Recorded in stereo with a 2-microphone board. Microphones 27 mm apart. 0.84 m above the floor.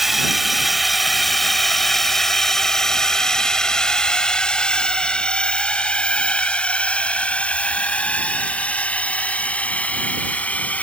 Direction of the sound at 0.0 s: 10° right (ahead or behind).